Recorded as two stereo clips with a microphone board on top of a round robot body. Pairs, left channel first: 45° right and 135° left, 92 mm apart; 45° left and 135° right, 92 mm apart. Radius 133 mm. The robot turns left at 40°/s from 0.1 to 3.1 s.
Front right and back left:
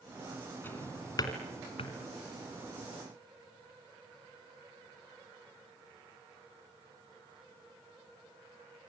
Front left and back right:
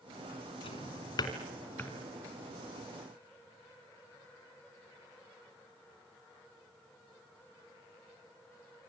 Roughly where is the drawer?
Ahead left.